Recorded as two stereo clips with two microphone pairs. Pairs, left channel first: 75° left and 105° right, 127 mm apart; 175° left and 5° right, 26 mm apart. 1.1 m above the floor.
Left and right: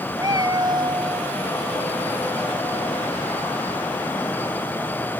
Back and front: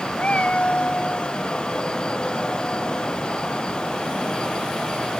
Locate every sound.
0.2 s a cat meowing: 160° right; by 1.4 s 155° right